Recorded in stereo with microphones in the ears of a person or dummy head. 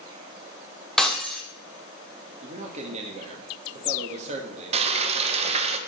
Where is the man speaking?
35° right (ahead or behind), 1.6 m.